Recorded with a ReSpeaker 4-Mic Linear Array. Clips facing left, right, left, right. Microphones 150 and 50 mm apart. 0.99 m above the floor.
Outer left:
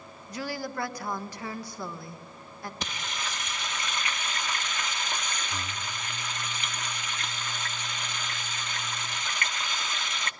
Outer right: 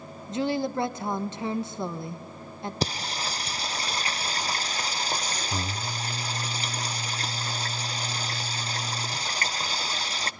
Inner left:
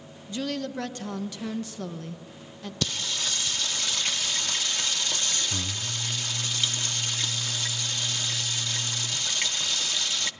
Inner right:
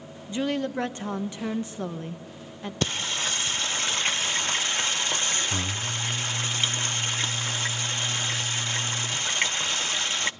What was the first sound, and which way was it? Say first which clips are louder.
A woman speaking: outer right 8 dB, inner right 4 dB; 25° right (ahead or behind).